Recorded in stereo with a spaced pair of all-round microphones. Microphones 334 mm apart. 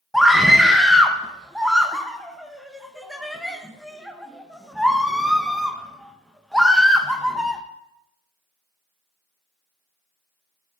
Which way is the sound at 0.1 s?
Centre (ahead or behind).